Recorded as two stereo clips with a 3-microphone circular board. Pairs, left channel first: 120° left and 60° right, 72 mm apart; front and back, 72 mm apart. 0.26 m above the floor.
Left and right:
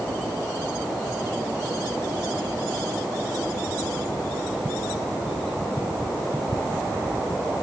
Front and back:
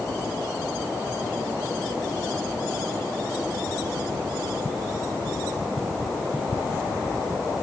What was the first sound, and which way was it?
Only background noise.